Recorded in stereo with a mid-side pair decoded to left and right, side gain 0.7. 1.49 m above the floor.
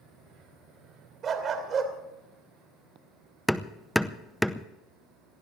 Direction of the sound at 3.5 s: Straight ahead.